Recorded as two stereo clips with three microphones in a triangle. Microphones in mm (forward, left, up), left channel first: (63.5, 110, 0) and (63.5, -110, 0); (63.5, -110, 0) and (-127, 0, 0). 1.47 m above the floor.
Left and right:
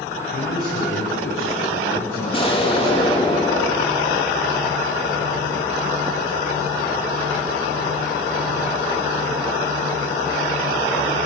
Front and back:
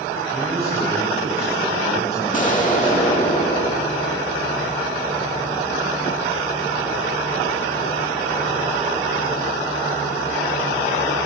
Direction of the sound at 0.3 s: 75° left.